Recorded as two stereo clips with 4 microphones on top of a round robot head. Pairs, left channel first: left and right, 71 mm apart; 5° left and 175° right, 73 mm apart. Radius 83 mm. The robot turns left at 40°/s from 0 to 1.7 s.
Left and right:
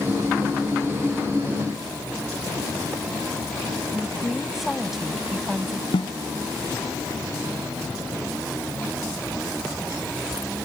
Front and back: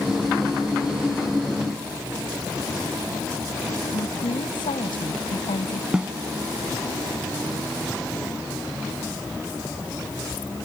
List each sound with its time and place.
3.9 s a woman speaking: straight ahead
5.9 s a snare drum: 105° left